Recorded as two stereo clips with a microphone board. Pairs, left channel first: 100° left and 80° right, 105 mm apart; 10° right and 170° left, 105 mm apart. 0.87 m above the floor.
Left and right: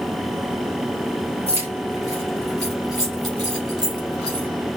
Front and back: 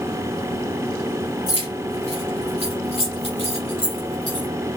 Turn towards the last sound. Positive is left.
turn(degrees=-35)